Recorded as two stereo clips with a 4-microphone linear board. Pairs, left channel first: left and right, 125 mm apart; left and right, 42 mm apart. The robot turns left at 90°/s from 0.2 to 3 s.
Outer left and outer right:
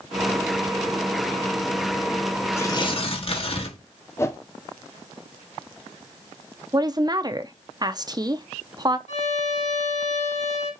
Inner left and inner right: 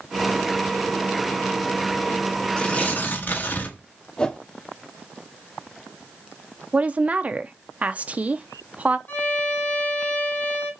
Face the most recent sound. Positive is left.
turn(degrees=65)  # may be behind; listen again after turning